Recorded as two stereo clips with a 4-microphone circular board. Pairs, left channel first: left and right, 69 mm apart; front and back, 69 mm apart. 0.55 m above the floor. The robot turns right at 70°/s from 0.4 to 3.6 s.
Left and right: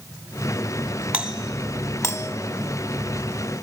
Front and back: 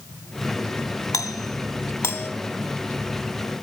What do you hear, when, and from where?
1.1 s a doorbell: 15° right, 3 m; by 2.3 s 65° left, 3 m